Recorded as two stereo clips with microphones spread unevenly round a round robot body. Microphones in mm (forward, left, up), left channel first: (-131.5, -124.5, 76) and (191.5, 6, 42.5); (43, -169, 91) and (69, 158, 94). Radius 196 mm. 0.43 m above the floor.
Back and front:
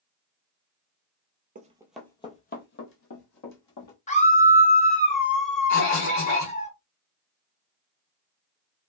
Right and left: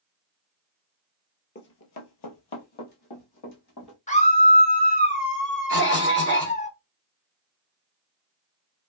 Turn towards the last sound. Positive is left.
turn(degrees=-135)